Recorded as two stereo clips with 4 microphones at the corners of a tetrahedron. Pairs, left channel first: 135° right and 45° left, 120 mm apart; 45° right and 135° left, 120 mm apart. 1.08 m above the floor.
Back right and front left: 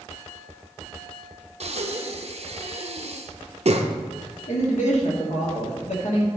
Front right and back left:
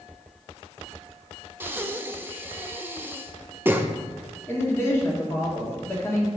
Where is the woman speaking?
115° right, 2.0 m.